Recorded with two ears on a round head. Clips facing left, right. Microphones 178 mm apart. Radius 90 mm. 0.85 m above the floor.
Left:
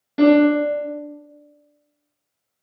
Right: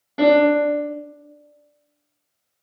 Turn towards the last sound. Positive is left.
turn(degrees=20)  # may be behind; listen again after turning